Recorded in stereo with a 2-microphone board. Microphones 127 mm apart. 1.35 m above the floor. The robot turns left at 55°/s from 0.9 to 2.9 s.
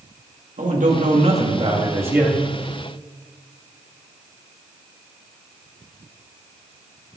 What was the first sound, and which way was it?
A man speaking, 95° right.